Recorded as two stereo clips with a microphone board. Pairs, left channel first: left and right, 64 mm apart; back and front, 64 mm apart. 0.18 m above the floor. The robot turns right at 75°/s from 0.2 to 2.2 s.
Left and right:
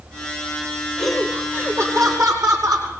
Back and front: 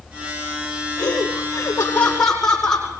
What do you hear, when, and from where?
1.0 s laughter: 170° left, 8.5 m; by 2.9 s 100° right, 8.5 m